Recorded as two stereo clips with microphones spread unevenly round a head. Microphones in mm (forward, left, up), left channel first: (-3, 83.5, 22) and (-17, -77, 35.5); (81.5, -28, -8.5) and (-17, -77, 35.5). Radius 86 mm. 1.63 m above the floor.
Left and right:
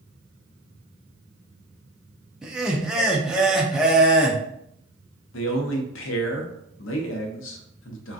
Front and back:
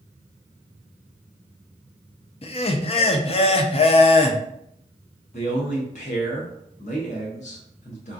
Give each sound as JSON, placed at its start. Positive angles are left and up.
{"t": 2.4, "sound": "laughter", "azimuth_deg": -10, "distance_m": 0.6}
{"t": 5.3, "sound": "a man speaking", "azimuth_deg": 75, "distance_m": 0.7}